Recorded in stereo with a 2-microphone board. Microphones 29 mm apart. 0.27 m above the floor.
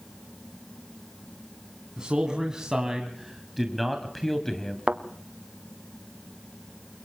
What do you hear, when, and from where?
2.0 s a man speaking: 30° right (ahead or behind), 2.5 m; by 4.8 s 20° left (ahead or behind), 1.8 m
4.9 s a thud: 45° right (ahead or behind), 1.5 m